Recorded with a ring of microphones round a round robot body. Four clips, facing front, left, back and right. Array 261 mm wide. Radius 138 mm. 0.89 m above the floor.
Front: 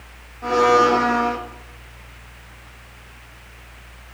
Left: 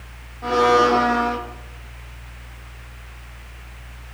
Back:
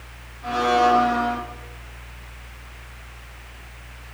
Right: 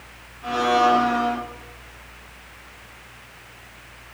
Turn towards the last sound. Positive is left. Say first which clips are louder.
# left 3 dB, front 3 dB
turn(degrees=40)